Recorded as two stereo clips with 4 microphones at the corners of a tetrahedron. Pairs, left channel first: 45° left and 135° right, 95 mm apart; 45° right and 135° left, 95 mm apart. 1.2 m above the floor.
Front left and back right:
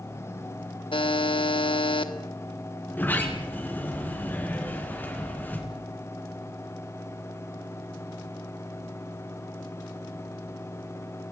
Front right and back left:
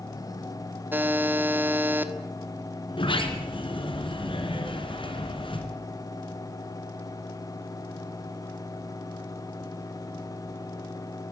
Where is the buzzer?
65° left, 1.4 m.